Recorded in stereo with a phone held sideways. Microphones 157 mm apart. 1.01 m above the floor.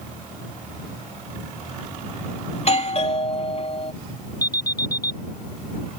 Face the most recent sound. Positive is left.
turn(degrees=25)  # may be behind; listen again after turning